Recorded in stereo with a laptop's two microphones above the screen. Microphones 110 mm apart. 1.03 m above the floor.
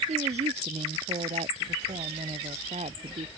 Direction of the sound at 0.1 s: 85° right.